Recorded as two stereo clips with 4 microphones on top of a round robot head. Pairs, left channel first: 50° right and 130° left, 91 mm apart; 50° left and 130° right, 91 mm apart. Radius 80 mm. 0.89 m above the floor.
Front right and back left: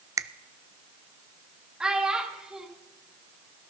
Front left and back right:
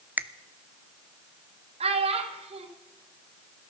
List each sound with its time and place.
0.2 s a finger snap: 165° left, 0.7 m
1.8 s a child speaking: 145° right, 2.5 m